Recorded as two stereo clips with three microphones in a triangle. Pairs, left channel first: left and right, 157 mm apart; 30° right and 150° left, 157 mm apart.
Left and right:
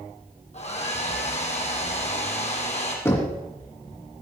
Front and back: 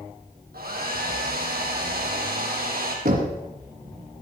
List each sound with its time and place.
0.5 s a hair dryer: 135° left, 2.5 m
3.0 s knocking: 165° left, 2 m